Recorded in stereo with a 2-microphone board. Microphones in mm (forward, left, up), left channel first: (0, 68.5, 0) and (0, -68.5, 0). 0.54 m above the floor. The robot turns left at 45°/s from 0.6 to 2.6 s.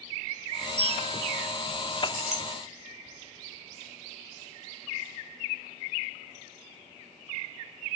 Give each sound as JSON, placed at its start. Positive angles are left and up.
{"t": 0.8, "sound": "a bell", "side_deg": -45, "distance_m": 5.0}
{"t": 2.1, "sound": "a clink", "side_deg": -65, "distance_m": 3.0}